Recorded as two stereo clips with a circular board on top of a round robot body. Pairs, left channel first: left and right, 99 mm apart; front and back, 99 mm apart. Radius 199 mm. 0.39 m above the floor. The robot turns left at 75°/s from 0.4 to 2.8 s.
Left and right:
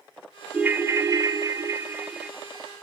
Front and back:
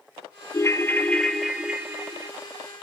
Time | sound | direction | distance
0.5 | a ringtone | 25° right | 0.7 m